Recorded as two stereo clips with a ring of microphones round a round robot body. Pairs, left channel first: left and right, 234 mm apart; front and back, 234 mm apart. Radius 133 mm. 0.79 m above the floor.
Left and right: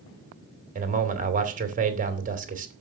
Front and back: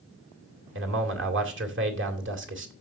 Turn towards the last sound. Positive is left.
turn(degrees=-145)